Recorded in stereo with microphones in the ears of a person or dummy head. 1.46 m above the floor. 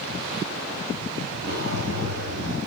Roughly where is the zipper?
Right.